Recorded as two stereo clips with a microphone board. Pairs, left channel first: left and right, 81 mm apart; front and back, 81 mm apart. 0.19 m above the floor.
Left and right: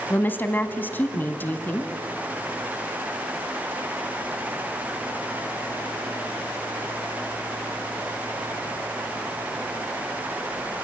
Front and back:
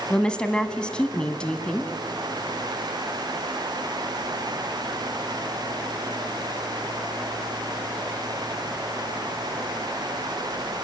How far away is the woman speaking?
About 1.3 m.